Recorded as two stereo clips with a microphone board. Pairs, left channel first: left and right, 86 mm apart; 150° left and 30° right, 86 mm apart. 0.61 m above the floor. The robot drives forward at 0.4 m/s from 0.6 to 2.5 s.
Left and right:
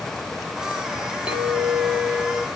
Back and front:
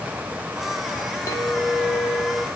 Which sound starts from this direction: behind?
A clink, at 1.3 s.